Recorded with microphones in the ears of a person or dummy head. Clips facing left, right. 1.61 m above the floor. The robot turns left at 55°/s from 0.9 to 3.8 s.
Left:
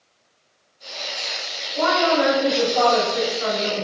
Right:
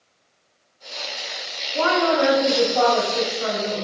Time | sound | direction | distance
1.8 | a woman speaking | 115° right | 1.0 m